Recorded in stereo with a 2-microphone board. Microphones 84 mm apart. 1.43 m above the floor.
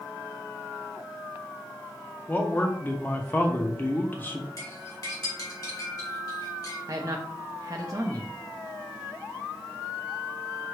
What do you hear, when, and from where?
2.3 s a man speaking: 25° left (ahead or behind), 0.8 m
4.6 s cutlery clinking: 50° left (ahead or behind), 2.5 m
6.9 s a man speaking: 45° right (ahead or behind), 0.5 m